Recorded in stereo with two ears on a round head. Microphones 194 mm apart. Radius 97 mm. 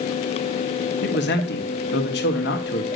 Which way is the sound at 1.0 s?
50° left (ahead or behind).